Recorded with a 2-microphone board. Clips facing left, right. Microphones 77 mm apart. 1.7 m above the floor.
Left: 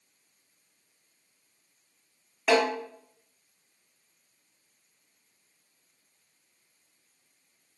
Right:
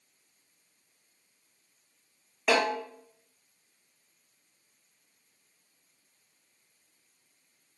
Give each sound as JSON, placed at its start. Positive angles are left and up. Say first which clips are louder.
{"t": 2.5, "sound": "a snare drum", "louder": "left 2 dB", "side_deg": 5, "distance_m": 1.4}